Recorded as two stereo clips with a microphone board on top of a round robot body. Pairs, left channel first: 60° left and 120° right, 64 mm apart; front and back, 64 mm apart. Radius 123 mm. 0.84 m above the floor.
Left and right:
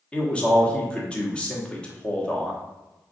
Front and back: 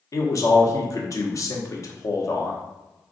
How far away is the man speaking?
About 1.2 m.